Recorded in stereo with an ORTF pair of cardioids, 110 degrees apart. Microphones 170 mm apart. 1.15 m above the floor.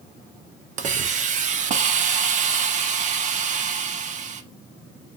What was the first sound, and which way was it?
A hiss, 45° right.